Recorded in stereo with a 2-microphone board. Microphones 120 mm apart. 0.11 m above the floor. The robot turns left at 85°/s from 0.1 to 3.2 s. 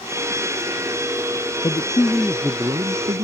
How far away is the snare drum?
I don't hear a snare drum.